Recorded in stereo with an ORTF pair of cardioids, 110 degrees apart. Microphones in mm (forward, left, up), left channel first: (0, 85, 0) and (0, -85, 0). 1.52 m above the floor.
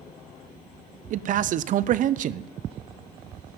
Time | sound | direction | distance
1.1 | a man speaking | 50° right | 0.6 m